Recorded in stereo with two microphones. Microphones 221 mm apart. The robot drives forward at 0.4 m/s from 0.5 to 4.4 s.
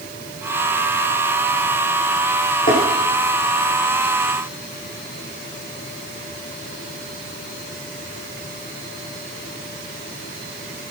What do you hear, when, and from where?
2.7 s tapping: 40° left (ahead or behind), 6.5 m